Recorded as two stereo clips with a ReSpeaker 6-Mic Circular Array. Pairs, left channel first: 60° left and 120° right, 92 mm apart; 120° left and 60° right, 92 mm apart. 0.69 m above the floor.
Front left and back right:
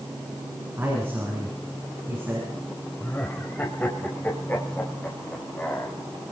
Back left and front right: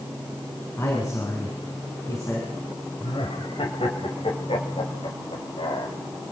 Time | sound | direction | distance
0.8 | a man speaking | 175° left | 7.5 m
3.0 | laughter | 130° left | 4 m